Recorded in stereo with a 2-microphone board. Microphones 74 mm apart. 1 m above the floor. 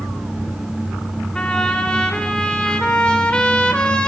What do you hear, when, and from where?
1.4 s a trumpet: 15° left (ahead or behind), 3.5 m